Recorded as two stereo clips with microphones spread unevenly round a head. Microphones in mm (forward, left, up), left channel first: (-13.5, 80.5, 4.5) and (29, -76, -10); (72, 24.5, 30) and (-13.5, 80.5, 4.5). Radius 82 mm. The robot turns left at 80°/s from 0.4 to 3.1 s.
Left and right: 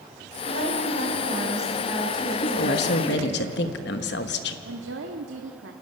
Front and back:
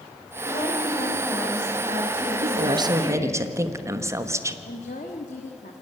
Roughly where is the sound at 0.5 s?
Ahead right.